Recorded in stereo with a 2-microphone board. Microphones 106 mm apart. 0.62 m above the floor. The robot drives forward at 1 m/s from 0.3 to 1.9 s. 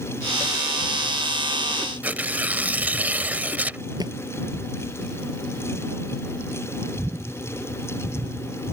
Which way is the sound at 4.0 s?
40° right (ahead or behind).